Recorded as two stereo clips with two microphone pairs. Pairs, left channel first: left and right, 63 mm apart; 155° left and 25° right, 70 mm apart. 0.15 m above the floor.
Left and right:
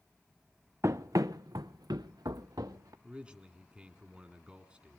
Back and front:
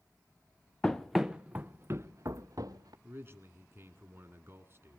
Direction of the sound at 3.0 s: 30° right.